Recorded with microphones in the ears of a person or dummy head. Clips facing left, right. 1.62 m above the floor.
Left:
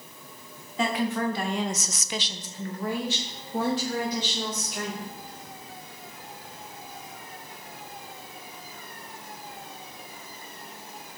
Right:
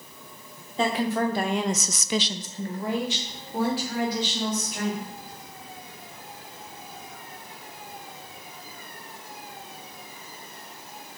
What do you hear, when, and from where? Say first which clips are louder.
0.8 s a woman speaking: right 2 dB; 25° right (ahead or behind), 1.4 m; by 5.1 s centre (ahead or behind), 3 m